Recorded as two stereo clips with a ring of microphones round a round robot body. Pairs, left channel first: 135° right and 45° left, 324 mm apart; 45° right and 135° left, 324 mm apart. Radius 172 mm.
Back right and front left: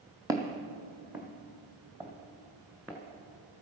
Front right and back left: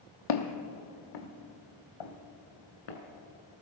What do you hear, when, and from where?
0.3 s footsteps: 35° right, 1.1 m; by 3.0 s 40° right, 2.5 m